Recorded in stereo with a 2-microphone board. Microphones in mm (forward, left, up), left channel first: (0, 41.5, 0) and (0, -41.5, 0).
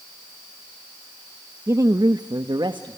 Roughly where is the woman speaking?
Right.